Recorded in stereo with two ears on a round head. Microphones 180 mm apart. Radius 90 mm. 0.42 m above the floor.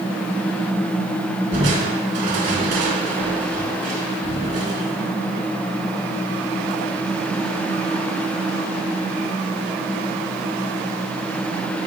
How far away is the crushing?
About 3.5 m.